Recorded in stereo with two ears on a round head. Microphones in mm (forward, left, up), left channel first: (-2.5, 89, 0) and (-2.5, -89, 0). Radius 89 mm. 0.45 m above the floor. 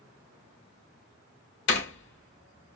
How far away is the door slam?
About 1.5 m.